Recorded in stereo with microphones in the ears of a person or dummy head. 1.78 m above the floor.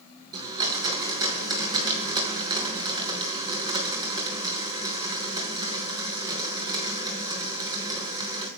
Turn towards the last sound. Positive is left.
turn(degrees=-20)  # may be behind; listen again after turning